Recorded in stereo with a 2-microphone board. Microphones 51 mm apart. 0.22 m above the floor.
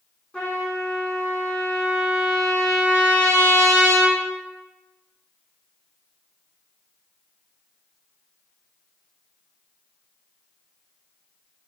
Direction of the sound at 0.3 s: 15° left (ahead or behind).